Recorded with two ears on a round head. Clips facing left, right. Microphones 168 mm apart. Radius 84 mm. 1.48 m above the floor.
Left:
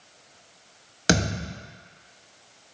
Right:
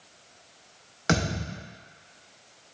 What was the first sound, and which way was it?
A thud, 40° left (ahead or behind).